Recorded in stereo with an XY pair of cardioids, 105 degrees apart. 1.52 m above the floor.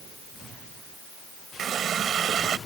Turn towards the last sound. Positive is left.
turn(degrees=-55)